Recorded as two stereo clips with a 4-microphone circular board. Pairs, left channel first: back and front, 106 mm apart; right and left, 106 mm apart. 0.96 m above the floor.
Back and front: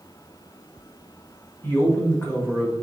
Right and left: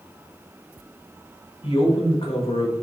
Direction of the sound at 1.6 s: 110° right.